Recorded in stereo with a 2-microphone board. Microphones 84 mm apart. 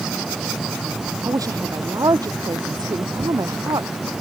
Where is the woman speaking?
45° right (ahead or behind); by 4.2 s 55° right (ahead or behind).